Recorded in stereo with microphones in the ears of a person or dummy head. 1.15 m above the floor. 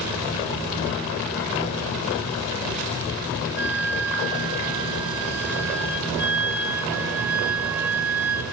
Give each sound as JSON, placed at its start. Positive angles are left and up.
{"t": 3.6, "sound": "a flute", "side_deg": -5, "distance_m": 1.5}